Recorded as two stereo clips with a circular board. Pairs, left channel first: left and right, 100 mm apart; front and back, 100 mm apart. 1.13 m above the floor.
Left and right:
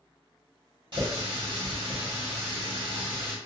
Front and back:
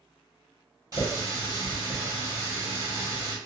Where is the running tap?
125° right, 1.1 m.